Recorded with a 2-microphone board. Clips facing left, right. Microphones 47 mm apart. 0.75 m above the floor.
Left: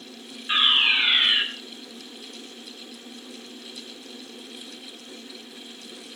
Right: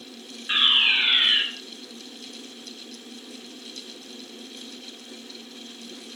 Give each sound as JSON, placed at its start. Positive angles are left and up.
{"t": 0.5, "sound": "a fire alarm", "side_deg": -10, "distance_m": 7.0}